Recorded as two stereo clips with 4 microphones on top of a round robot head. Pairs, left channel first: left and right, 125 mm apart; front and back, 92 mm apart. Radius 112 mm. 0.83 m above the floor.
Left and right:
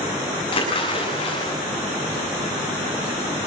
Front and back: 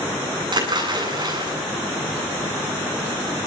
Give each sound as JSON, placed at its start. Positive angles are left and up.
{"t": 0.5, "sound": "a splash", "azimuth_deg": 145, "distance_m": 9.0}